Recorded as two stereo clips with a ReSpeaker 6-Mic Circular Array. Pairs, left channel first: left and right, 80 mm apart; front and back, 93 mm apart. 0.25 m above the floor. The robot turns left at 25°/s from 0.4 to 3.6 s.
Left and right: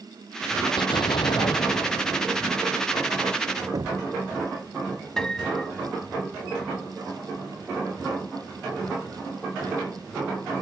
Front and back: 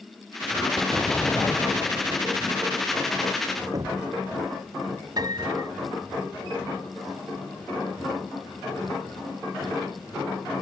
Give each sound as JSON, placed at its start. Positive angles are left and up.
{"t": 0.8, "sound": "an explosion", "azimuth_deg": 85}
{"t": 3.7, "sound": "knocking", "azimuth_deg": -130}
{"t": 5.2, "sound": "a piano", "azimuth_deg": 170}